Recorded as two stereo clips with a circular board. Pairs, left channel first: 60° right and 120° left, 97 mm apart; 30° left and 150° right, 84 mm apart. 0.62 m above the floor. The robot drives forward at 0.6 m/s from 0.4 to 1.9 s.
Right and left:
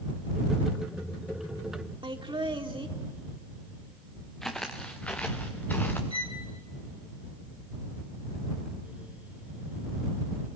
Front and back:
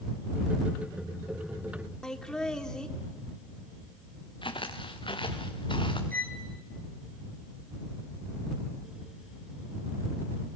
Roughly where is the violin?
Ahead right.